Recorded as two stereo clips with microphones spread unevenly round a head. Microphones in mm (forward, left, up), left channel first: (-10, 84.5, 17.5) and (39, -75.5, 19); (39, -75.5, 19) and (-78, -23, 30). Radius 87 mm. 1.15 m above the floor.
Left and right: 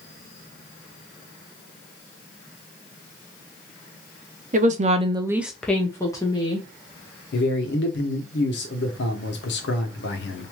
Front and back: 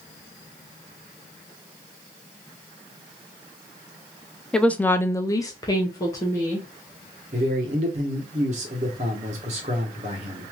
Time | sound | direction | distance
4.5 | a woman speaking | 105° right | 0.8 m
7.3 | a man speaking | 110° left | 1.1 m